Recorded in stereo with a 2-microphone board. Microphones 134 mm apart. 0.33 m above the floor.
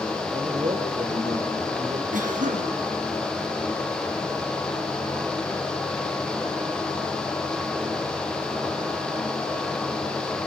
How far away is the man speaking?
About 7.5 m.